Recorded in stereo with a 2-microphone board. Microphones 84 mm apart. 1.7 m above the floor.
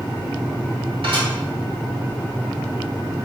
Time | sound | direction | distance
1.0 | dishes clattering | 70° right (ahead or behind) | 2.5 m